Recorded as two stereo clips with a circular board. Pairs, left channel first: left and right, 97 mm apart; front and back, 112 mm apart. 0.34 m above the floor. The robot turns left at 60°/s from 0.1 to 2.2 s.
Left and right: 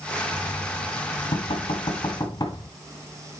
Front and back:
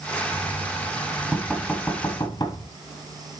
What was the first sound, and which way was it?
Knocking, 155° left.